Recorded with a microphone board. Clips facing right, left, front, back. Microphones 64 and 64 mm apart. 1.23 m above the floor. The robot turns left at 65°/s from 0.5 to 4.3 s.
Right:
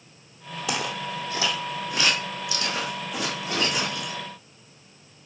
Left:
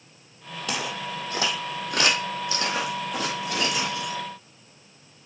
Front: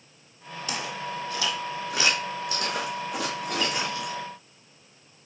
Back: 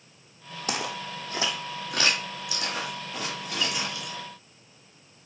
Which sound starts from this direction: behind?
Footsteps, at 0.7 s.